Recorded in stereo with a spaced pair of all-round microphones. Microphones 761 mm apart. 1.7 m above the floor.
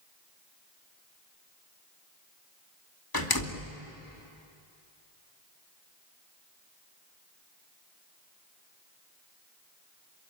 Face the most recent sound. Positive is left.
turn(degrees=30)  # may be behind; listen again after turning